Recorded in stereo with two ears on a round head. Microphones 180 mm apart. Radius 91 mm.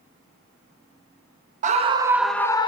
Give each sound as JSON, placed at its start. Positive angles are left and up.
{"t": 1.6, "sound": "a scream", "side_deg": -40, "distance_m": 0.7}